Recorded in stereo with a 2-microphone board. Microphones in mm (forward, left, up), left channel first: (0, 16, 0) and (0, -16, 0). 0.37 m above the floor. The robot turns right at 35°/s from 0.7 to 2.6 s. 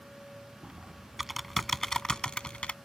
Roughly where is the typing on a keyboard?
Right.